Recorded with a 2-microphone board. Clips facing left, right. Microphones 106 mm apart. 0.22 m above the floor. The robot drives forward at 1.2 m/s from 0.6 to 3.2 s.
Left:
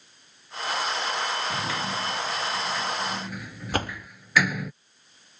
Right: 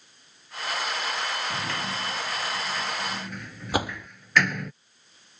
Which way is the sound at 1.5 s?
5° left (ahead or behind).